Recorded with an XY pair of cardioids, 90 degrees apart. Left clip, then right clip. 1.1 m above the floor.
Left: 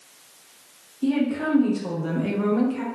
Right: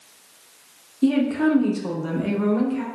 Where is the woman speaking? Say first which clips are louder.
Right 4 dB; 55° right, 0.8 m; by 2.8 s 10° left, 1.0 m.